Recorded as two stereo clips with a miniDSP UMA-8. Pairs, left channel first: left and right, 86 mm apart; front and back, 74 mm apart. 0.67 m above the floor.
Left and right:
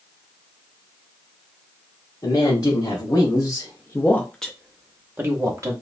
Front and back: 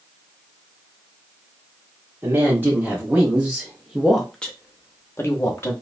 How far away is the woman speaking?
About 1.3 m.